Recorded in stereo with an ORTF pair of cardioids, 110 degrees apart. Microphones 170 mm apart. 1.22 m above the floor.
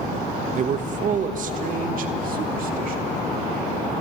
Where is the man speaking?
45° right, 1.0 m; by 3.1 s 55° right, 2.5 m.